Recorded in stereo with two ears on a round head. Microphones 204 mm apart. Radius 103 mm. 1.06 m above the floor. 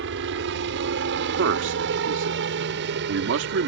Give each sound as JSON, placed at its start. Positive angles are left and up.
{"t": 0.0, "sound": "a helicopter", "side_deg": -60}
{"t": 1.4, "sound": "a man speaking", "side_deg": -65}